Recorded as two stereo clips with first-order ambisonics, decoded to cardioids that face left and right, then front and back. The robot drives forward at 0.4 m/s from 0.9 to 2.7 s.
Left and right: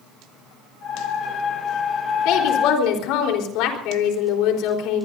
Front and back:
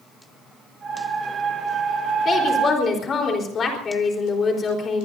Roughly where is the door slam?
I don't hear a door slam.